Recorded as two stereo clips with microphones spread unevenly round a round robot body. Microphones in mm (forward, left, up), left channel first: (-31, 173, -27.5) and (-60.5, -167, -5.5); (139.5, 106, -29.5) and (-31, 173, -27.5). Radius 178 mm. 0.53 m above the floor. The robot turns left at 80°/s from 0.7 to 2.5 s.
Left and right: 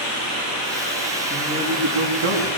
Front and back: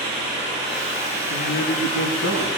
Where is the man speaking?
10° left, 6.5 m; by 2.6 s 90° right, 6.5 m.